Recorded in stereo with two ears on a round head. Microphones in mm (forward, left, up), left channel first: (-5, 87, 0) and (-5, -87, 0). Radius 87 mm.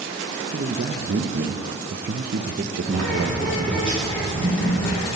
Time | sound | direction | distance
0.5 | a man speaking | 50° right (ahead or behind) | 0.6 m
2.8 | a bird | 5° left (ahead or behind) | 3.5 m